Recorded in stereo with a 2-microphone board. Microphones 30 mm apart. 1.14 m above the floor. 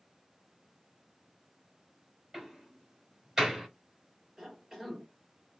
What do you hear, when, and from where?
2.3 s a door slam: 20° right (ahead or behind), 3.5 m
4.4 s a cough: 10° right (ahead or behind), 4 m